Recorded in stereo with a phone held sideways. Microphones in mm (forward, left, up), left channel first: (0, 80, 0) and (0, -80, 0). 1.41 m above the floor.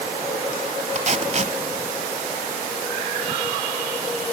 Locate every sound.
0.9 s tape being pulled: 45° right (ahead or behind), 1.7 m